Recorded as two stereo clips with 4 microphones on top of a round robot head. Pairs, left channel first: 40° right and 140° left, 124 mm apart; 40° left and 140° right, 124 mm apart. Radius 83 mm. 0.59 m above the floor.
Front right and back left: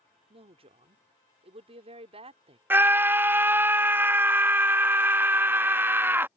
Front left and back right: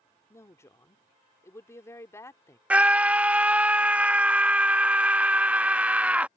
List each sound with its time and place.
0.3 s a woman speaking: 110° left
2.7 s a scream: 165° left